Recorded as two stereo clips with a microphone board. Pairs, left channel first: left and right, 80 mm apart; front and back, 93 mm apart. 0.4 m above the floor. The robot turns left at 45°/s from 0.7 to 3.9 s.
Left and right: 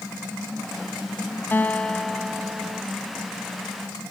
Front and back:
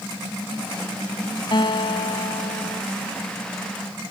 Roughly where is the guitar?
Ahead left.